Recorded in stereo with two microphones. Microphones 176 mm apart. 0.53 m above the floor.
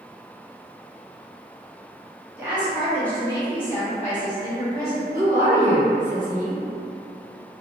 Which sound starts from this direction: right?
A woman speaking, at 5.1 s.